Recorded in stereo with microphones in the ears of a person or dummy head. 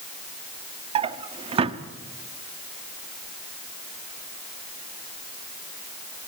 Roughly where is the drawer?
Right.